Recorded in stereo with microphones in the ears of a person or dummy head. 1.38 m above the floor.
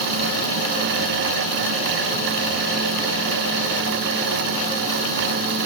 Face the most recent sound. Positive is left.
No sound to turn to.